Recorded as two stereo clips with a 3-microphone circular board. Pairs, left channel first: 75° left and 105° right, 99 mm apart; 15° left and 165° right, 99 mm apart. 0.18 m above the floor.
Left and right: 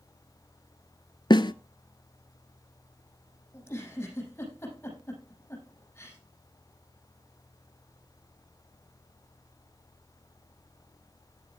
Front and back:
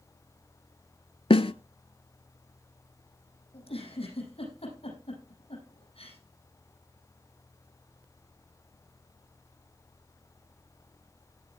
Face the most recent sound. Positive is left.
turn(degrees=10)